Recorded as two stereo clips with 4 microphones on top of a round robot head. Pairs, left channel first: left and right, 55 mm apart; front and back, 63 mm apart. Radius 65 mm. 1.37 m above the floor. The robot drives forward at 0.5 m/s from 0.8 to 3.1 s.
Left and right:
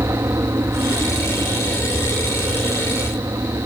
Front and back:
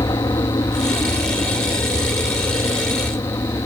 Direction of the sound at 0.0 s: 40° right.